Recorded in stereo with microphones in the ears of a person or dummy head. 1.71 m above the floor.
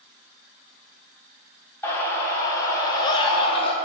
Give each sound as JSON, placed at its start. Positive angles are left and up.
{"t": 1.8, "sound": "a scream", "side_deg": 10, "distance_m": 4.5}